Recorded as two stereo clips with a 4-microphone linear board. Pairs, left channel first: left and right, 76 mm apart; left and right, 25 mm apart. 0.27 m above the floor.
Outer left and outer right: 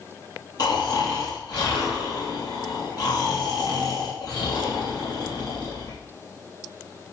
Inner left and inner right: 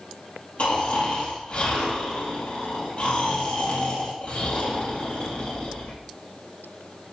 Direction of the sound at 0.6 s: 65° left (ahead or behind).